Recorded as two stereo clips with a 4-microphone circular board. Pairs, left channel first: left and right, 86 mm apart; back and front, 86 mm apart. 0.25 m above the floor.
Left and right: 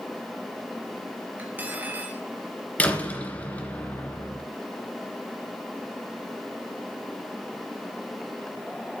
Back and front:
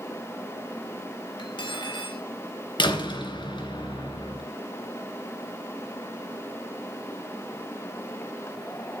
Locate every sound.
1.4 s cutlery clinking: 160° right, 3 m
2.8 s a door slam: 165° left, 2.5 m